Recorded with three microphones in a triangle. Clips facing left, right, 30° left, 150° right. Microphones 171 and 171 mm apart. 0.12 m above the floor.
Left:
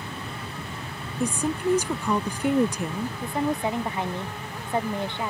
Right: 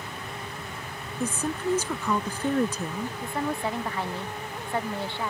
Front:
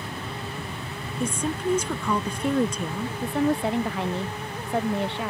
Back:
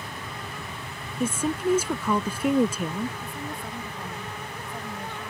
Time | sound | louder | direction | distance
0.0 | an aircraft | left 2 dB, front 4 dB | 60° left | ?
1.2 | a woman speaking | left 3 dB, back 2 dB | 140° left | ?
3.2 | a woman speaking | left 4 dB, front 13 dB | 20° left | ?